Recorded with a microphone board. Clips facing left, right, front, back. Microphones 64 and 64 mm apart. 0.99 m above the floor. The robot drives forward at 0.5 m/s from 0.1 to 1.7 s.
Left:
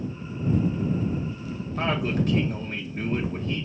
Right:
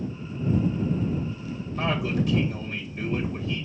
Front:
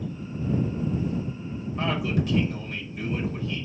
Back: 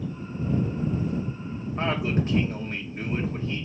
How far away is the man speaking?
About 1.2 m.